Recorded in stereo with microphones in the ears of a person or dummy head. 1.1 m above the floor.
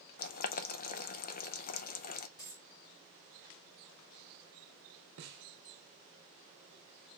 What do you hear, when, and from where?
0.2 s boiling: 45° left (ahead or behind), 0.5 m
2.4 s a dropped coin: 20° left (ahead or behind), 1.4 m
5.2 s a snare drum: 50° right (ahead or behind), 0.8 m